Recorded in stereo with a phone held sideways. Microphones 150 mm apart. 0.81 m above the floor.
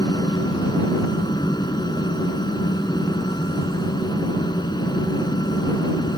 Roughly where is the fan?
Left.